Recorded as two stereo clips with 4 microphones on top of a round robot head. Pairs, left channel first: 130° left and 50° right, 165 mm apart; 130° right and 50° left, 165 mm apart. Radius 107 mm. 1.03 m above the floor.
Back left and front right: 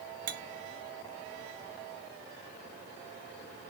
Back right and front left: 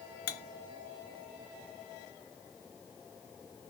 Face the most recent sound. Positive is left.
turn(degrees=-95)